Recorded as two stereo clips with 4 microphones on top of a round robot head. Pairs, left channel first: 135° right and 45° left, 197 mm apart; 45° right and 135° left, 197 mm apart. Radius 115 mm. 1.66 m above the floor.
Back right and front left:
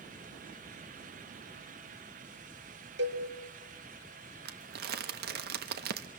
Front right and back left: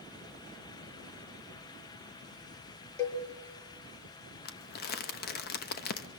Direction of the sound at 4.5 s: Straight ahead.